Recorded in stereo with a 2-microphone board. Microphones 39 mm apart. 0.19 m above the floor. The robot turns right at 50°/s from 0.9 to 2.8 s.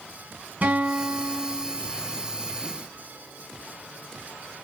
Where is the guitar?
110° right, 0.8 m; by 1.8 s 65° right, 0.8 m.